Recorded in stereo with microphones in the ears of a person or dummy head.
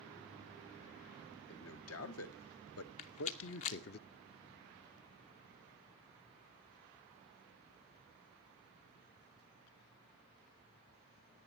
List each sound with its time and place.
1.5 s a man speaking: 70° left (ahead or behind), 1.8 m; by 4.0 s 50° left (ahead or behind), 0.7 m
3.0 s a rattle: 30° left (ahead or behind), 0.6 m